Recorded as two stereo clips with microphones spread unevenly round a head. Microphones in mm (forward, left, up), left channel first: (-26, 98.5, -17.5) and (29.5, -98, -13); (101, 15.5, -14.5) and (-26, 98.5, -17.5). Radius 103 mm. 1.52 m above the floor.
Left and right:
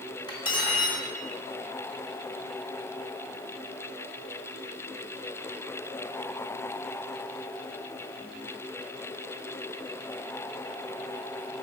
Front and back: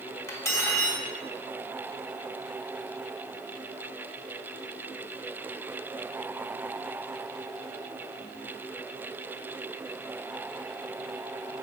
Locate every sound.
0.3 s cutlery clinking: 35° left, 1.4 m